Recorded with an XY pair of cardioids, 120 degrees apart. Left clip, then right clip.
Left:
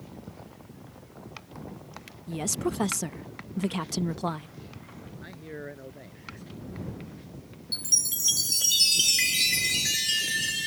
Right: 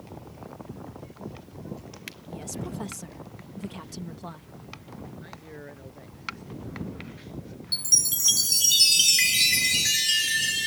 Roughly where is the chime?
Ahead.